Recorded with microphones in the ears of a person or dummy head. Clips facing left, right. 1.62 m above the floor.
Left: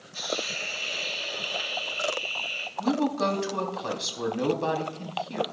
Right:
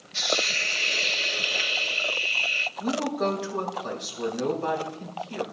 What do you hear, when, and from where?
0.1 s a hiss: 30° right (ahead or behind), 0.6 m
2.8 s a woman speaking: 70° left (ahead or behind), 3.5 m